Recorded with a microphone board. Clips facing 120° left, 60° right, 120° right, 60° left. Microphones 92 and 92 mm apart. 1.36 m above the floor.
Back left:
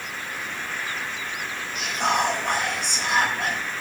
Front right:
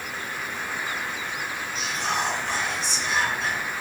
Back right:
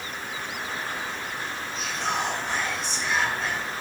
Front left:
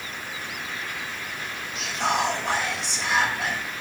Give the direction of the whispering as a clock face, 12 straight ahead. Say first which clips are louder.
Back left 5 dB, front left 4 dB; 9 o'clock.